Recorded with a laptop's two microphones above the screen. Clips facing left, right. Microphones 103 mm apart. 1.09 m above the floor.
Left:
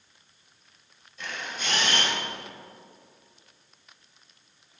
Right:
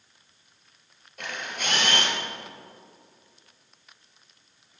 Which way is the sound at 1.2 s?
70° right (ahead or behind).